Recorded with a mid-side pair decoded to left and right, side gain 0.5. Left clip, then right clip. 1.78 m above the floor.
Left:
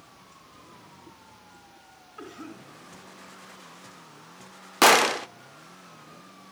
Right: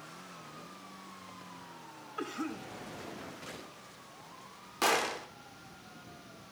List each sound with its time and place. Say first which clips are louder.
2.2 s a cough: right 4 dB; 40° right, 3.5 m
4.8 s a gunshot: left 12 dB; 65° left, 0.6 m